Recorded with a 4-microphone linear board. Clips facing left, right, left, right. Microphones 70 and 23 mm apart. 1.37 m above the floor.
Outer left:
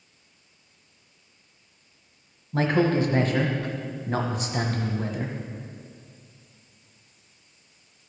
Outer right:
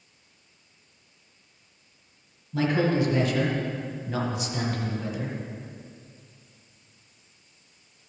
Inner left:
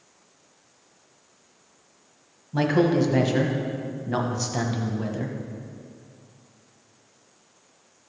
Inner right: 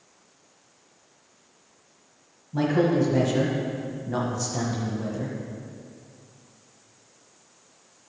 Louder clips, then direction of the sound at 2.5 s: Outer left 2 dB, inner left 1 dB; 40° left (ahead or behind).